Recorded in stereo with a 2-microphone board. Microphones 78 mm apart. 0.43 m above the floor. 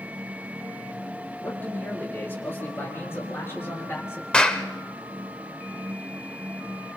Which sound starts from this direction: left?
A man speaking, at 1.4 s.